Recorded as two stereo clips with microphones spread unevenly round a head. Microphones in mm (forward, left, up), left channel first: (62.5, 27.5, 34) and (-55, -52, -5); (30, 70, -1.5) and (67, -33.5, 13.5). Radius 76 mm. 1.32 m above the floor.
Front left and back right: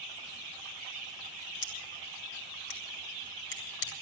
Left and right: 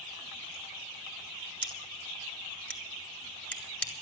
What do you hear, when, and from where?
1.6 s scissors: 30° left, 2.5 m